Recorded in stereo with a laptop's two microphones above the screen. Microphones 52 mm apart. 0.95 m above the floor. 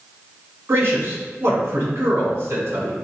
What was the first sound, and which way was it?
A man speaking, 55° right (ahead or behind).